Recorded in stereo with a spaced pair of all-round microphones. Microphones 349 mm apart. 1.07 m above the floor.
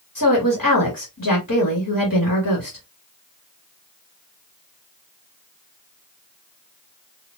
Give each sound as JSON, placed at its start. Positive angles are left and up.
{"t": 0.1, "sound": "a woman speaking", "side_deg": 60, "distance_m": 1.9}